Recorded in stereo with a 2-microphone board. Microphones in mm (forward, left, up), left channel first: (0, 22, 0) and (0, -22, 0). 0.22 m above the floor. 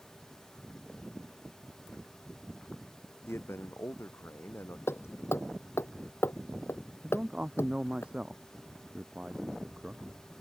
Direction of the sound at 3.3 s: 70° left (ahead or behind).